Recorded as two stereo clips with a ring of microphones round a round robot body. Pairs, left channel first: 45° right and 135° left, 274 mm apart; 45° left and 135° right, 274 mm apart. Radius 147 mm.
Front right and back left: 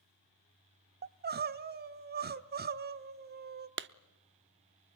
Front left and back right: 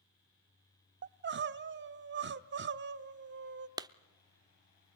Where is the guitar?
I don't hear a guitar.